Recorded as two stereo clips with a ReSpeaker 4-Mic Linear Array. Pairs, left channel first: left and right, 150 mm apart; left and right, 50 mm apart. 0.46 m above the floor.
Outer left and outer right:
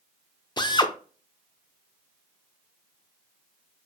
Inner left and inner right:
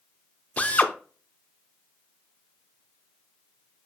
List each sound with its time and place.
0.6 s a drill: 30° left (ahead or behind), 0.5 m